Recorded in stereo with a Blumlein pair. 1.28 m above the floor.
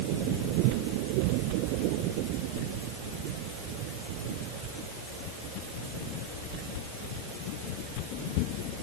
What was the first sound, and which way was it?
Only background noise.